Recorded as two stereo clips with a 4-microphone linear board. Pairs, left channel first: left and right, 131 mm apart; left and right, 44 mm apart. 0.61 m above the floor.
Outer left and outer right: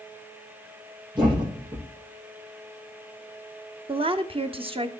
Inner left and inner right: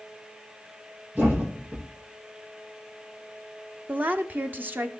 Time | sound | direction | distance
1.1 | a thud | 35° right (ahead or behind) | 9.5 m
3.9 | a woman speaking | 40° right (ahead or behind) | 1.2 m